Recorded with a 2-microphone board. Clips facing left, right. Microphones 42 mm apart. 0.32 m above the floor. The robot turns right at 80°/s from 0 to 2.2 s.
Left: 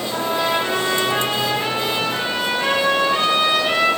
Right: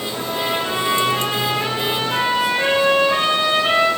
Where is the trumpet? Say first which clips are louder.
Left 3 dB; 45° left, 7.5 m; by 3.9 s 145° right, 7.5 m.